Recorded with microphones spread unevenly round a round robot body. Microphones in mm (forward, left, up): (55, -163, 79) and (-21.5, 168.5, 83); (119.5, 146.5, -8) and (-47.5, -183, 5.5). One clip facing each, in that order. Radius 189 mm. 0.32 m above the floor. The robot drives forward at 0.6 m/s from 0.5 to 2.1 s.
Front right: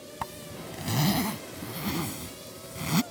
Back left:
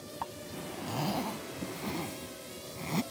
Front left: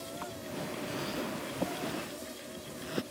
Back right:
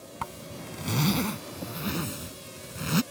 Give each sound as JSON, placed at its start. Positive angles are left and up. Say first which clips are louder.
{"t": 0.2, "sound": "a zipper", "louder": "front right 1 dB, front left 1 dB", "azimuth_deg": -120}